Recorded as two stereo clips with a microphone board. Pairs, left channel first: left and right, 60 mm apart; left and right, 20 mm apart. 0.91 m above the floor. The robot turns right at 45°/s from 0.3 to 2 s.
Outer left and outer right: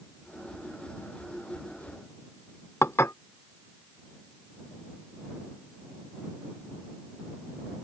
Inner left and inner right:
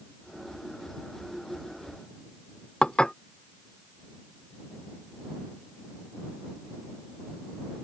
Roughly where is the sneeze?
No sneeze in this recording.